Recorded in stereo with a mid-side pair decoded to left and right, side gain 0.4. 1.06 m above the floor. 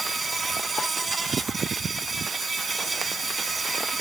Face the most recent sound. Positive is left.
turn(degrees=-30)